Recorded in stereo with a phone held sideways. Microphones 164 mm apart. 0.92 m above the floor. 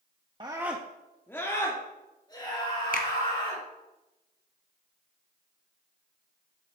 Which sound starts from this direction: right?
A scream, at 0.4 s.